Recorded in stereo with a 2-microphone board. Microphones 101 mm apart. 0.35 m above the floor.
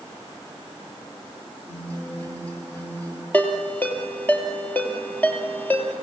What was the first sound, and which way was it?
A guitar, 15° left (ahead or behind).